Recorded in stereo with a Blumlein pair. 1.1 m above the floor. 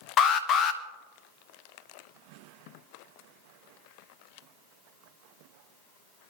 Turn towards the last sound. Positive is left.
turn(degrees=25)